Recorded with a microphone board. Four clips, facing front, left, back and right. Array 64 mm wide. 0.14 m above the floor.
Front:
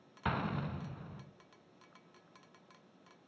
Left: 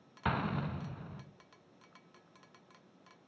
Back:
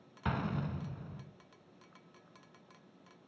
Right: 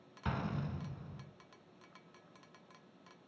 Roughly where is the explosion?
Left.